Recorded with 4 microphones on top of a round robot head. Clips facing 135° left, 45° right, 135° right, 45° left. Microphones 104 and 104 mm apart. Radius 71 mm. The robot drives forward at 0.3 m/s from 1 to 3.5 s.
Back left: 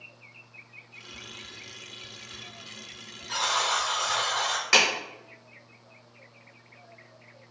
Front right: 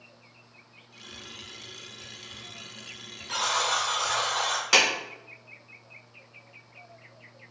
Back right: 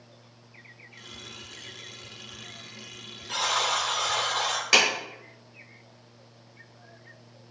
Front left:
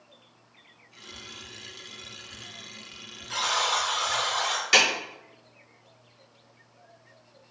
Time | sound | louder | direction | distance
1.1 | whispering | even, front left 1 dB | 25° right | 1.0 m
3.3 | a buzzer | even, even | 130° right | 0.8 m
4.7 | a clap | even, even | 120° right | 1.0 m